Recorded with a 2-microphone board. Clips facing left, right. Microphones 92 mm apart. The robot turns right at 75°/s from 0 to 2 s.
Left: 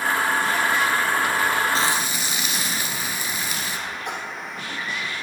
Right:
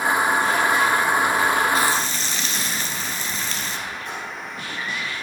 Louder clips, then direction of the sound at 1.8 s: Right 2 dB; 30° left (ahead or behind).